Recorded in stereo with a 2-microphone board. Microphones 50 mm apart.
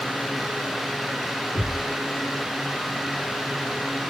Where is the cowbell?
I don't hear a cowbell.